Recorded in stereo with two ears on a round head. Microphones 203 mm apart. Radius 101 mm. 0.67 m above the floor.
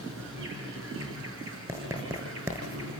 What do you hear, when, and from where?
0.0 s an insect: 60° right (ahead or behind), 6.5 m
1.7 s writing: 15° right (ahead or behind), 6 m